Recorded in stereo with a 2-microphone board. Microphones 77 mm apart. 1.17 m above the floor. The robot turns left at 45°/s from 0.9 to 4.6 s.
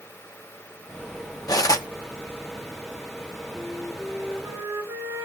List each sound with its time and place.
1.5 s cutlery clinking: 55° left (ahead or behind), 0.9 m; by 1.9 s 40° left (ahead or behind), 0.9 m
3.5 s a flute: 5° left, 5 m; by 5.2 s 40° right, 5 m